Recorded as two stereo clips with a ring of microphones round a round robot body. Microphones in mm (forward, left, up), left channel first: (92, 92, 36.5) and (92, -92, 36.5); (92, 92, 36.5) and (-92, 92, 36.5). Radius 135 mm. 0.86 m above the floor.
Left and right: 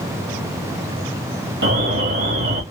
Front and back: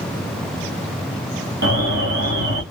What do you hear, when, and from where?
1.6 s an alarm: 135° right, 1.9 m